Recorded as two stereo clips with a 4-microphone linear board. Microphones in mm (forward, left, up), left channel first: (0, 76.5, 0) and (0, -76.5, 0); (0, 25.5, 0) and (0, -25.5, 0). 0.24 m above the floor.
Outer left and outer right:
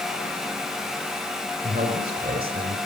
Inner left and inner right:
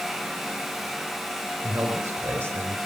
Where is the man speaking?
70° right (ahead or behind), 4 m.